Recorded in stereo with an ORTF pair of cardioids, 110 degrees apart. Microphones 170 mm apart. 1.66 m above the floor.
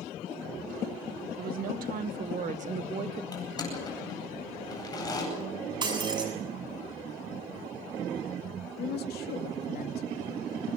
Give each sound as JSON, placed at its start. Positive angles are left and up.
{"t": 1.4, "sound": "a woman speaking", "azimuth_deg": -65, "distance_m": 2.5}
{"t": 3.3, "sound": "crushing", "azimuth_deg": 20, "distance_m": 9.5}
{"t": 5.8, "sound": "breaking glass", "azimuth_deg": -25, "distance_m": 7.0}
{"t": 8.8, "sound": "a woman speaking", "azimuth_deg": 70, "distance_m": 2.5}